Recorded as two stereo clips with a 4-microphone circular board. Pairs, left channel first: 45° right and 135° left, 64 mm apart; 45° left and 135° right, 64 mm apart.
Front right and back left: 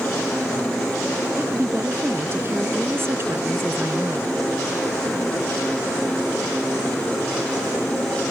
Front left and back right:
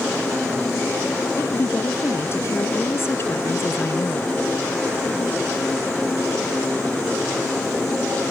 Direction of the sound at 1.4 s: 90° left.